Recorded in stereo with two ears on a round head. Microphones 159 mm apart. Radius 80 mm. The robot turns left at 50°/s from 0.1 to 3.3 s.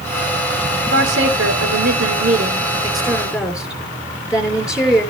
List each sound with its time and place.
0.9 s a woman speaking: 55° right, 6 m; by 5.1 s 175° right, 6 m